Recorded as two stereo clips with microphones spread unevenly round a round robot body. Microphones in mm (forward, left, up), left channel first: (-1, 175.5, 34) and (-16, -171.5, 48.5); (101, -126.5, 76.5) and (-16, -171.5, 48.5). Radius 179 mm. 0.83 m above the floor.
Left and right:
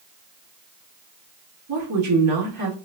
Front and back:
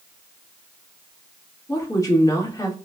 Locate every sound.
1.7 s a woman speaking: 45° right, 2 m